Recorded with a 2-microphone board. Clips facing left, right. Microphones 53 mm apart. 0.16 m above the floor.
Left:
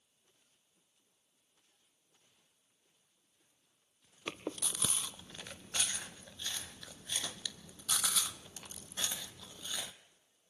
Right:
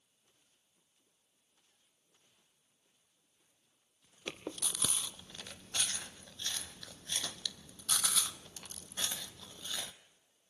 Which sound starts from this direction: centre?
Chewing, at 4.3 s.